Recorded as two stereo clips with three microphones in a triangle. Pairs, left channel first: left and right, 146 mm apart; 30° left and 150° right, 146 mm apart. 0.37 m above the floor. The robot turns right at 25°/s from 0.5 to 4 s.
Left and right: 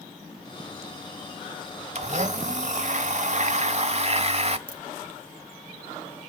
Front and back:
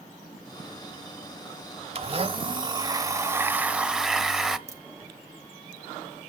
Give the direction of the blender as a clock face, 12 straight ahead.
4 o'clock.